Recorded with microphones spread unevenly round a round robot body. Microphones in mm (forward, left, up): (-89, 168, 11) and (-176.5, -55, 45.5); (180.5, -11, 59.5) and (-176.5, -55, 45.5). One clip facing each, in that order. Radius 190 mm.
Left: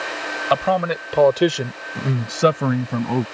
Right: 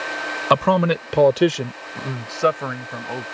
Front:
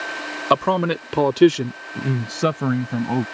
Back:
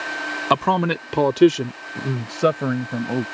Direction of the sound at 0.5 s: 100° right.